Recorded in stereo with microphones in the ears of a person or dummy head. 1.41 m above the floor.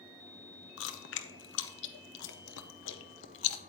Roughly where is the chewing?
Left.